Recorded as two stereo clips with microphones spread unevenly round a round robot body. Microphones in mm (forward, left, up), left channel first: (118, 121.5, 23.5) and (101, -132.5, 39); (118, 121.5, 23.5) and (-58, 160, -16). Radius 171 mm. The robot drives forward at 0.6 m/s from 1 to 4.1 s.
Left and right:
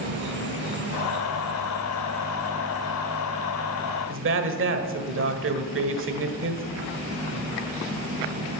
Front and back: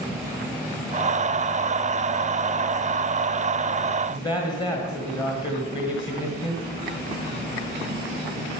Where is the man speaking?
90° right, 1.5 m.